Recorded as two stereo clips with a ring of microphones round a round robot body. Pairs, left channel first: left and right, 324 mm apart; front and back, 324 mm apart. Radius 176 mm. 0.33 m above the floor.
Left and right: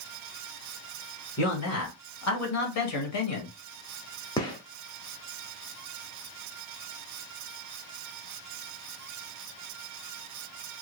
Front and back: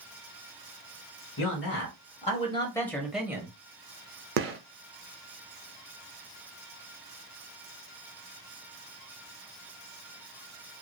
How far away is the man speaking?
About 1.5 m.